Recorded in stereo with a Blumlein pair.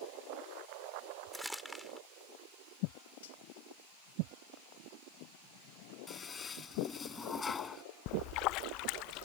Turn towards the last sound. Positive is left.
turn(degrees=40)